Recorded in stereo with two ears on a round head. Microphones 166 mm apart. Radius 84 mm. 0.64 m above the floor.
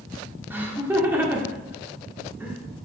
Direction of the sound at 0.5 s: 10° right (ahead or behind).